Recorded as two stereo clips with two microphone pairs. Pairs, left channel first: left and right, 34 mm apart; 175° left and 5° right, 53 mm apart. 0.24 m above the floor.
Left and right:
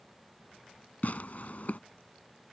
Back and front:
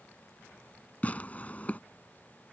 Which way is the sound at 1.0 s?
120° left.